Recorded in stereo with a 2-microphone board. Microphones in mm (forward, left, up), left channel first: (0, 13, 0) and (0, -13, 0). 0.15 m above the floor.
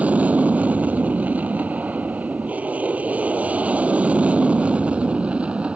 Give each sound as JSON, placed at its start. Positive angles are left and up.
{"t": 0.0, "sound": "an aircraft", "side_deg": -65}